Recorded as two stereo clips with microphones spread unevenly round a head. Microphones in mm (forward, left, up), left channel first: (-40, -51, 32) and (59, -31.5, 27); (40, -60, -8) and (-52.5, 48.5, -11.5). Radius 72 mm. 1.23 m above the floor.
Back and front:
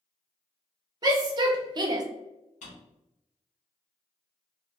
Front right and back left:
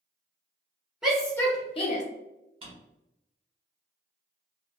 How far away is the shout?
About 0.6 m.